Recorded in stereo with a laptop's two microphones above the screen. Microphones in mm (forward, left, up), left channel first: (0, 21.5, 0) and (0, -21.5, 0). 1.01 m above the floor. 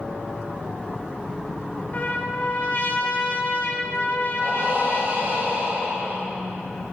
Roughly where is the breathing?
Right.